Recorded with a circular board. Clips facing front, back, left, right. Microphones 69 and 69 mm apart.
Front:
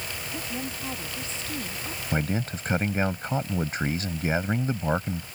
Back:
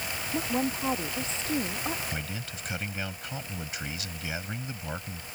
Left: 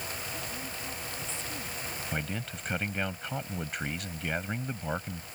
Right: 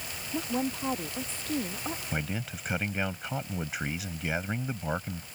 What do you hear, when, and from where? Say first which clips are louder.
0.3 s a woman speaking: back 7 dB, right 8 dB; 125° right
2.1 s a man speaking: front 9 dB, left 2 dB; 10° right